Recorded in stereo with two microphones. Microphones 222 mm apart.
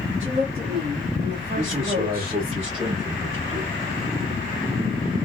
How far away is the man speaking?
About 1.7 m.